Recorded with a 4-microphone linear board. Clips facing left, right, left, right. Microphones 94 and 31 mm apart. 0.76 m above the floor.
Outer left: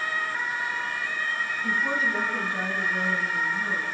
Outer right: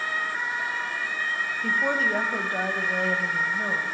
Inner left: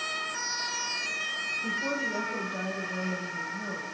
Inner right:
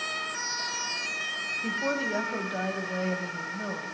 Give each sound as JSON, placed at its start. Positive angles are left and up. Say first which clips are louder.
{"t": 1.6, "sound": "a woman speaking", "louder": "outer right 2 dB, inner right 4 dB", "side_deg": -55, "distance_m": 5.0}